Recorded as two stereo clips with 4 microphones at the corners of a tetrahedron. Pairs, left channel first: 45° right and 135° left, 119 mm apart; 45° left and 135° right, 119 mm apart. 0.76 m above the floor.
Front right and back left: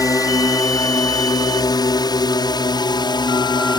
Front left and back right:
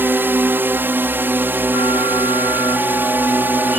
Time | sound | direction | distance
0.0 | a drone | 75° right | ?